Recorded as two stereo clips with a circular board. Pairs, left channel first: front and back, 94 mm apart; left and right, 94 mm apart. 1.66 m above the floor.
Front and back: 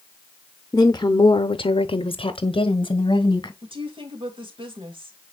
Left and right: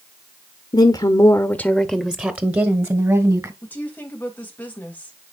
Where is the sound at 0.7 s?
60° left, 0.8 m; by 3.5 s 40° right, 1.5 m.